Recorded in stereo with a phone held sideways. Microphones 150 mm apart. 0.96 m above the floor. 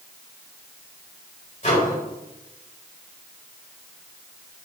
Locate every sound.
1.6 s a microwave: 55° left (ahead or behind), 3.5 m